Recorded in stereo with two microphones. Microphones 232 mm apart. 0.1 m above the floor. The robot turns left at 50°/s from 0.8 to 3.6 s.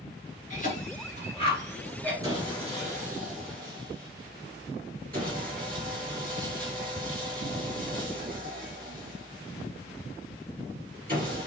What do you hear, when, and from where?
0.5 s a cough: 35° left (ahead or behind), 1.6 m; by 2.1 s 5° left (ahead or behind), 1.6 m
2.2 s sawing: 20° right, 1.5 m; by 11.5 s 90° right, 1.5 m